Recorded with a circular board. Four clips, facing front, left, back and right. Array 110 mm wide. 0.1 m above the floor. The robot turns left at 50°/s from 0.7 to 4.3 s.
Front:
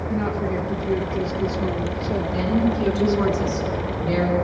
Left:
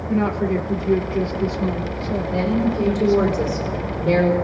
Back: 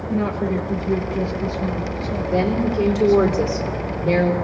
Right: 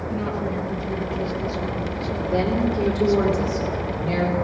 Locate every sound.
0.1 s a woman speaking: 85° left, 4 m; by 3.3 s 45° right, 4 m
2.3 s a woman speaking: 135° right, 5 m; by 4.3 s 125° left, 5 m